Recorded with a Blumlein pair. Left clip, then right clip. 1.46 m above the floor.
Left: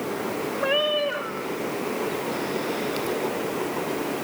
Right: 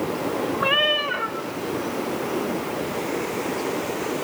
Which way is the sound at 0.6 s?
45° right.